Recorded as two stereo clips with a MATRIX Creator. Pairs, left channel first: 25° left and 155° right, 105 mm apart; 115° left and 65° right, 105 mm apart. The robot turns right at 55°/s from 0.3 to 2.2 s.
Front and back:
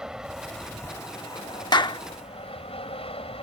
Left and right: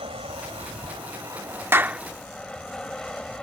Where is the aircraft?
75° right; by 3.4 s 30° left.